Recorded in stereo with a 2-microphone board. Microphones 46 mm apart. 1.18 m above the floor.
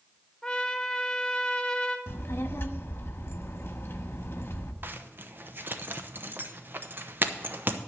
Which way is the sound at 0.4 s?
5° left (ahead or behind).